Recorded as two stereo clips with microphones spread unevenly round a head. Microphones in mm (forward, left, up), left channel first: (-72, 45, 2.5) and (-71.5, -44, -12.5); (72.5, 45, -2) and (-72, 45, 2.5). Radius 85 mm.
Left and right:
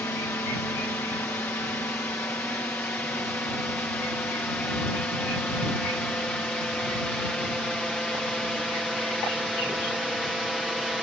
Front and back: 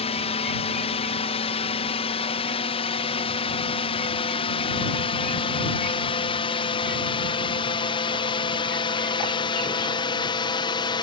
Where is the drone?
20° left; by 11.0 s straight ahead.